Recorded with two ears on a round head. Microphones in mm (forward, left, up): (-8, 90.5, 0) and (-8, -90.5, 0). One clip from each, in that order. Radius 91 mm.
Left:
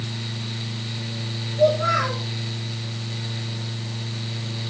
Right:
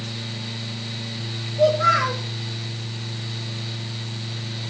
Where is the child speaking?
70° right (ahead or behind), 6.5 m.